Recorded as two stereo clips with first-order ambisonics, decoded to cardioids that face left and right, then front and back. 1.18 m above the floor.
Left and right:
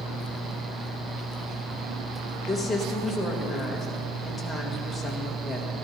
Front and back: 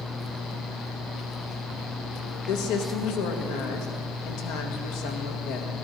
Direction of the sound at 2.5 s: 5° left.